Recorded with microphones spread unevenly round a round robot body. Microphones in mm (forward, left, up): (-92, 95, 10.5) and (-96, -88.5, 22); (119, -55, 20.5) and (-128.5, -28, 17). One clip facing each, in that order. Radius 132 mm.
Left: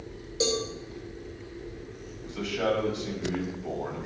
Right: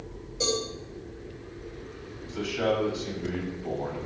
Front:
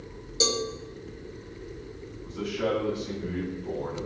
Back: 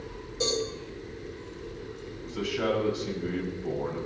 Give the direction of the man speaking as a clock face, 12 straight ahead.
6 o'clock.